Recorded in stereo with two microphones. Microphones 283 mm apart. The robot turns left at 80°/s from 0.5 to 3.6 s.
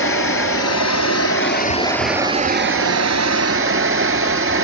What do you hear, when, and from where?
0.0 s running water: 125° left, 0.7 m; by 4.6 s 125° right, 0.7 m